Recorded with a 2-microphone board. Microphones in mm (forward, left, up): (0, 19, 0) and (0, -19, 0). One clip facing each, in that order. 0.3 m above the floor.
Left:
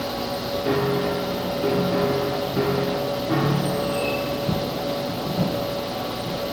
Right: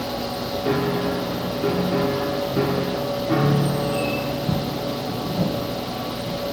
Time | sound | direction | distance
0.7 | a piano | 10° right (ahead or behind) | 7.5 m